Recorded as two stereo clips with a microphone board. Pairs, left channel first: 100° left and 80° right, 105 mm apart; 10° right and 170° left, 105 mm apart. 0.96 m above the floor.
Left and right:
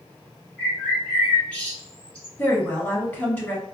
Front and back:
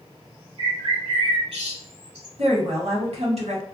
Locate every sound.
0.6 s a bird: straight behind, 1.7 m
2.4 s a woman speaking: 175° left, 1.3 m